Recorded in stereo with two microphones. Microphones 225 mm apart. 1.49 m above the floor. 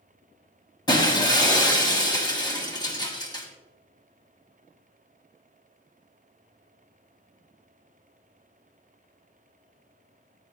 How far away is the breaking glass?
About 1.9 m.